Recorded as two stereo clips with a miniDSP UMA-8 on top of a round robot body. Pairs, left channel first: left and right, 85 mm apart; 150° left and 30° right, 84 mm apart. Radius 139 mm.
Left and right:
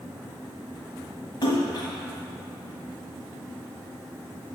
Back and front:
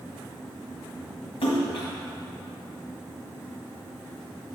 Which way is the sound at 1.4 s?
130° left.